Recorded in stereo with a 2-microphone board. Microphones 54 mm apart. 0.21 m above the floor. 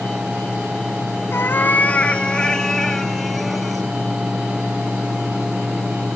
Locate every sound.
1.3 s a cat meowing: 50° left (ahead or behind), 1.0 m; by 3.9 s centre (ahead or behind), 2.5 m